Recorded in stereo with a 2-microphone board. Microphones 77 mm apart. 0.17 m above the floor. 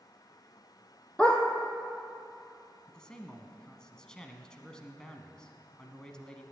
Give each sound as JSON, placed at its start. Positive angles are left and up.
{"t": 1.2, "sound": "a dog barking", "side_deg": 10, "distance_m": 1.7}
{"t": 2.9, "sound": "a man speaking", "side_deg": 10, "distance_m": 1.3}